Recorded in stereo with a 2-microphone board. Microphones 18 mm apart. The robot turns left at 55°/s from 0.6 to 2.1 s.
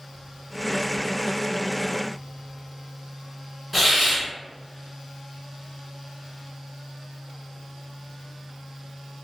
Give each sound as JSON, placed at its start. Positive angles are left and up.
{"t": 3.7, "sound": "a hiss", "side_deg": -10, "distance_m": 1.0}